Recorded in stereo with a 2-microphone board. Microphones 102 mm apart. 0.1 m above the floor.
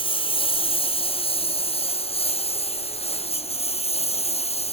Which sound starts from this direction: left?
A lawn mower, at 0.0 s.